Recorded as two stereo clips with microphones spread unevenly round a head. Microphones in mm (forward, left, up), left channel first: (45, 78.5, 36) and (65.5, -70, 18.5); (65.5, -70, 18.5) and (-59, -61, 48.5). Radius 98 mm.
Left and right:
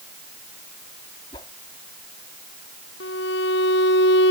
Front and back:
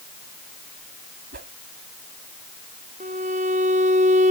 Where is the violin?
125° left.